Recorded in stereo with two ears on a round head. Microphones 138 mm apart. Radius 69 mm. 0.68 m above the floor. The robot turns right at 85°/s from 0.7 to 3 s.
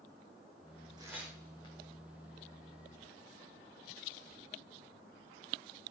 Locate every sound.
1.0 s tearing paper: 30° right (ahead or behind), 7 m; by 1.8 s 35° left (ahead or behind), 7 m